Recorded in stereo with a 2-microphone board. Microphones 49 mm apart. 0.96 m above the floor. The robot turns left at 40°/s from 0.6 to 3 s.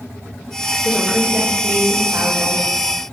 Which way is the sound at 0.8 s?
15° right.